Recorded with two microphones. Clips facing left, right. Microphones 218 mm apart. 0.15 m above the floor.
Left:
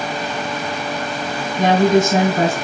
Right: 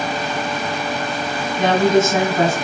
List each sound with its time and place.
1.6 s a woman speaking: 40° left (ahead or behind), 1.9 m